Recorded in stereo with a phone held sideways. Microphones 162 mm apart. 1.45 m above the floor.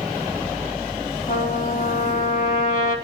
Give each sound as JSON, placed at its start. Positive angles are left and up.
{"t": 1.3, "sound": "a trumpet", "side_deg": 55, "distance_m": 4.0}